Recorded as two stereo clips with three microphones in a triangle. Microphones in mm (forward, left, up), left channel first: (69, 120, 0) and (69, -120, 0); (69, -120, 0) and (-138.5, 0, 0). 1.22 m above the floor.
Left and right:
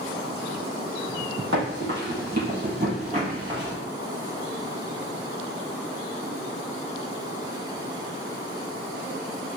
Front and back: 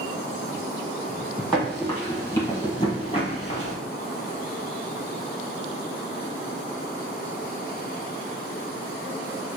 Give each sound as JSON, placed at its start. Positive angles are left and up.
{"t": 1.5, "sound": "running footsteps", "azimuth_deg": -115, "distance_m": 1.9}